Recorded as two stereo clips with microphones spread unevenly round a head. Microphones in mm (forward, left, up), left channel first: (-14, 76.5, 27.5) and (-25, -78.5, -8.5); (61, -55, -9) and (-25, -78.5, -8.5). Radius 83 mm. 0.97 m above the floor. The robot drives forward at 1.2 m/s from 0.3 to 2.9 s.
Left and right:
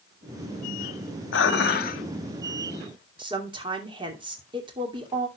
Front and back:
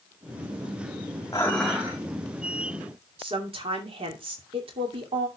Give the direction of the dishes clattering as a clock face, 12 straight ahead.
9 o'clock.